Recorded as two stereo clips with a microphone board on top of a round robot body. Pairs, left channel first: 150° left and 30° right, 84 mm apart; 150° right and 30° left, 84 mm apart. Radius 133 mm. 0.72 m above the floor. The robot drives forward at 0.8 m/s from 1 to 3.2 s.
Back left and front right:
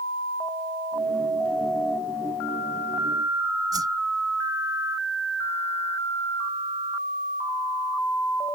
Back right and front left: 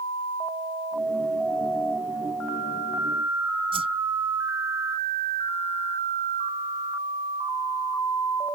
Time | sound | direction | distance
3.7 | a whoosh | 15° left | ?